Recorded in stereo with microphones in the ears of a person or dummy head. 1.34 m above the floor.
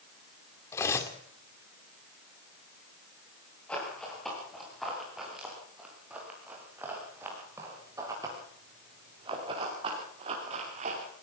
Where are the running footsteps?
5° left (ahead or behind), 9 m; by 11.1 s 40° right (ahead or behind), 7 m.